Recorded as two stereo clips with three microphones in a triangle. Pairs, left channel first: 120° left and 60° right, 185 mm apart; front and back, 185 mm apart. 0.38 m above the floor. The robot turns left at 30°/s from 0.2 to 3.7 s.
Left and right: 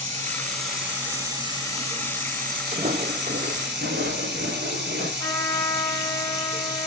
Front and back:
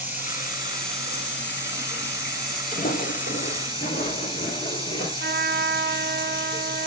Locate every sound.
0.0 s running water: 45° left, 3 m; by 6.9 s 60° right, 3 m
2.7 s footsteps: 20° right, 0.5 m; by 5.1 s 40° right, 2 m
5.2 s a trumpet: 175° right, 0.6 m